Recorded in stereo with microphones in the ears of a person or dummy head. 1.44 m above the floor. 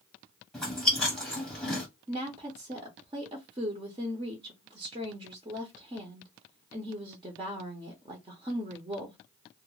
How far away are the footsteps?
I don't hear footsteps.